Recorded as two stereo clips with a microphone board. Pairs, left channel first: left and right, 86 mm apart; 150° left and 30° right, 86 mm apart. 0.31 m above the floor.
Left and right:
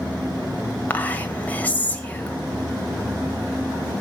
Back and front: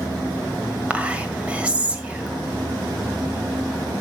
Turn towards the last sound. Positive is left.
turn(degrees=35)